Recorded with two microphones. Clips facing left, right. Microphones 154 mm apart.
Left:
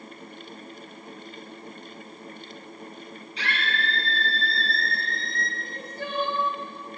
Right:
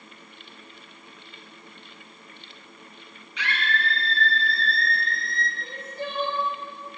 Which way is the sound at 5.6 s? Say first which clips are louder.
Right 1 dB; 25° right (ahead or behind).